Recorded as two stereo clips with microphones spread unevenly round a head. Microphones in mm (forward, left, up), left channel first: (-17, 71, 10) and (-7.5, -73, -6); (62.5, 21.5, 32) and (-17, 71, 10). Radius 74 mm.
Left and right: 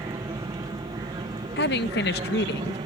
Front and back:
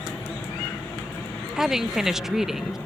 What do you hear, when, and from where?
0.0 s an aircraft: 95° right; by 2.9 s 110° right
1.6 s a woman speaking: 65° left